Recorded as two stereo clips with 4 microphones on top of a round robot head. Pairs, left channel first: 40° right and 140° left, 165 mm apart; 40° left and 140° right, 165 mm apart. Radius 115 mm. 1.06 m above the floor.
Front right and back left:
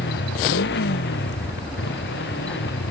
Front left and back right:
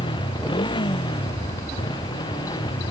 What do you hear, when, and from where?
0.0 s a motorcycle: 25° right